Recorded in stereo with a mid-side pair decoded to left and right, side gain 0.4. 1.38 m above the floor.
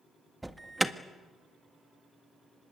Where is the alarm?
15° right, 1.6 m.